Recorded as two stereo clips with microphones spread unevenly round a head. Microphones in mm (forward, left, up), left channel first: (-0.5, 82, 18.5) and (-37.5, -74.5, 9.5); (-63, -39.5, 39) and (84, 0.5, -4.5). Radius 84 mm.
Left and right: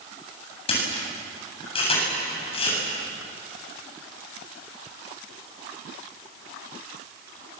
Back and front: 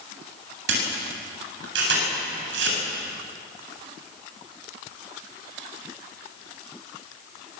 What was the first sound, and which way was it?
A camera shutter, 15° left.